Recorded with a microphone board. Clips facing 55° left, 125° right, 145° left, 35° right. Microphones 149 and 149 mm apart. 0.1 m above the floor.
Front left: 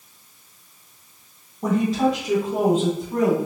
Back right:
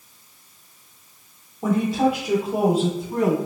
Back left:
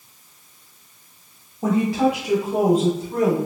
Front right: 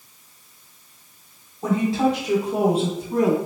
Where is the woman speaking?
150° left, 1.2 m; by 3.4 s 55° right, 1.2 m.